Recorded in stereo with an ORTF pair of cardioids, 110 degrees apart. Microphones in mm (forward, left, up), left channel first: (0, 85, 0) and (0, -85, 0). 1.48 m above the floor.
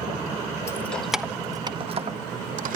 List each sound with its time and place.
0.7 s keys jangling: 15° left, 1.5 m; by 2.8 s 60° right, 2 m